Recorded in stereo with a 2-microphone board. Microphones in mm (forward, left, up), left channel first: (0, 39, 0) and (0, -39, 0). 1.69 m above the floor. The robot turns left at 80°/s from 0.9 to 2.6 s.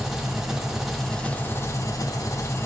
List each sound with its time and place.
0.0 s an engine running: 175° right, 0.8 m; by 2.7 s 50° left, 0.8 m